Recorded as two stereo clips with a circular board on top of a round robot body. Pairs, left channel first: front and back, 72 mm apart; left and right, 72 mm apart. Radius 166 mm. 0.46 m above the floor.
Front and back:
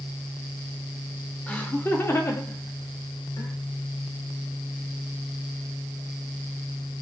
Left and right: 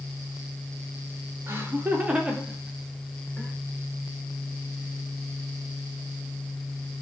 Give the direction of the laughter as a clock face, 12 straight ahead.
2 o'clock.